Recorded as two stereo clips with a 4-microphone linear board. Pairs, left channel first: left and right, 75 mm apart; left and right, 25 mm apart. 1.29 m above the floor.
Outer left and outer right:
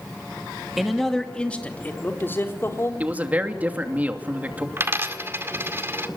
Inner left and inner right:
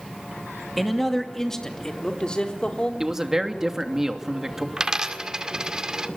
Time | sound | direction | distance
0.8 | a man speaking | 5° right (ahead or behind) | 2.5 m
3.0 | a man speaking | 20° right (ahead or behind) | 2.5 m
4.8 | a dropped coin | 30° right (ahead or behind) | 1.9 m